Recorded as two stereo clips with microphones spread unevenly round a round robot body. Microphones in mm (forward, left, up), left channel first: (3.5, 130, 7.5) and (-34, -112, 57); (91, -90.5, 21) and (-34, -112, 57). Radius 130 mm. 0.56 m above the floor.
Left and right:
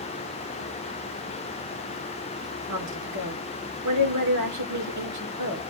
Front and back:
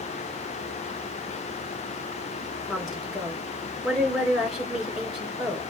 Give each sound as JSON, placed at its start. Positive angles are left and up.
{"t": 2.7, "sound": "a woman speaking", "azimuth_deg": -75, "distance_m": 2.5}